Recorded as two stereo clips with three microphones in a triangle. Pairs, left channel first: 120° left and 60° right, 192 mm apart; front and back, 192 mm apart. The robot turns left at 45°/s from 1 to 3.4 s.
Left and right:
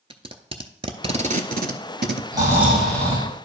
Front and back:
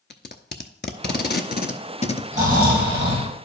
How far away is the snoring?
About 3 m.